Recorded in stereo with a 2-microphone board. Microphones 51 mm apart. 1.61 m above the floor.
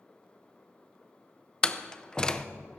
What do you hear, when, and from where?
1.6 s a door slam: 15° left (ahead or behind), 0.5 m